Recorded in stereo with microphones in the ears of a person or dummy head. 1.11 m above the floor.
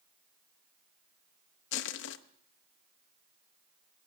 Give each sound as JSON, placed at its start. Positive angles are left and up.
{"t": 1.7, "sound": "crushing", "side_deg": 70, "distance_m": 0.9}